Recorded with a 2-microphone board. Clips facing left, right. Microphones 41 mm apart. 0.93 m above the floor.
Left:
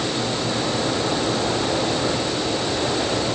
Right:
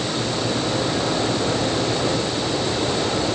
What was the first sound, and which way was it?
Only background noise.